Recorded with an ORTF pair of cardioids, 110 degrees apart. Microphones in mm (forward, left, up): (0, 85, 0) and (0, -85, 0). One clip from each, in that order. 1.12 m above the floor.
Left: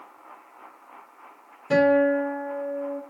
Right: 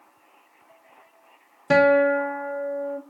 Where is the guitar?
55° right, 0.9 m.